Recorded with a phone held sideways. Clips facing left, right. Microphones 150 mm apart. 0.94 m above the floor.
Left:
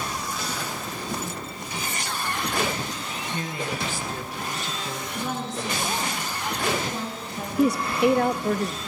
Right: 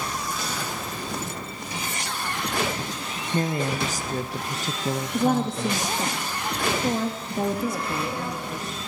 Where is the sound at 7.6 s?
70° left (ahead or behind), 0.9 m.